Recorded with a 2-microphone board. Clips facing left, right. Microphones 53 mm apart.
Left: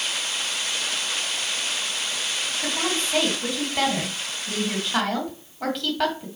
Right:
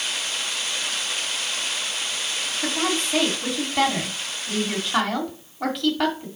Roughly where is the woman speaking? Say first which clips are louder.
Right 3 dB; centre.